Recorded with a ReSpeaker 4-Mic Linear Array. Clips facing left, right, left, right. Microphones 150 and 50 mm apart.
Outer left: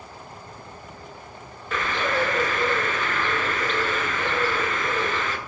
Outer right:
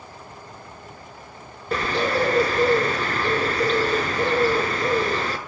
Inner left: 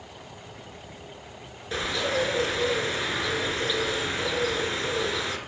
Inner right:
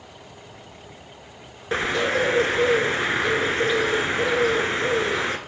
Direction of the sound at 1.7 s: 40° right (ahead or behind).